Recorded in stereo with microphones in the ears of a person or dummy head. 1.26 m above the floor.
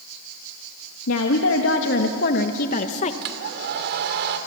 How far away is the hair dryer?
About 2.5 m.